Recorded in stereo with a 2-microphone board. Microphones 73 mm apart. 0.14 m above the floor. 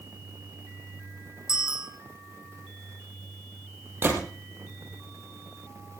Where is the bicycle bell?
10° right (ahead or behind), 5 m.